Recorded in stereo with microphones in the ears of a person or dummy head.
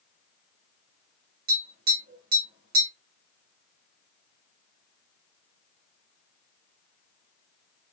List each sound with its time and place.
1.5 s tapping: 40° right (ahead or behind), 2 m